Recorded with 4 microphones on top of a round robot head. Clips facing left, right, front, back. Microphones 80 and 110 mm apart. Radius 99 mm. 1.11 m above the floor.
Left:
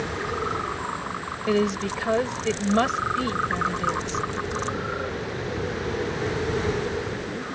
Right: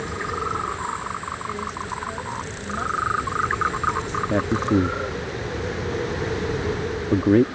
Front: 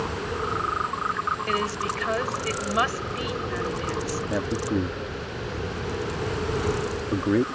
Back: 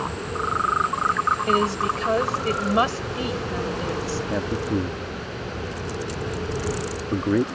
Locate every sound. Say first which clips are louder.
1.5 s a woman speaking: left 11 dB, back 5 dB; 120° left
4.3 s a man speaking: right 8 dB, back 1 dB; 90° right